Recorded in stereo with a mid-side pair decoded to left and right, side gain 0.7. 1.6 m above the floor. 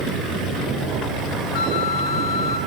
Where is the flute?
70° left, 3 m.